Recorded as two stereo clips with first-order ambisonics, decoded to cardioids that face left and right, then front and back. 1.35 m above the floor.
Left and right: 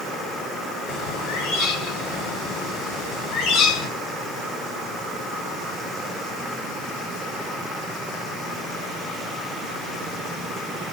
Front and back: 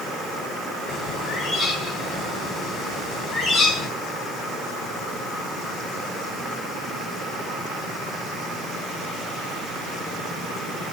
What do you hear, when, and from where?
0.9 s a bird: 65° left, 2.5 m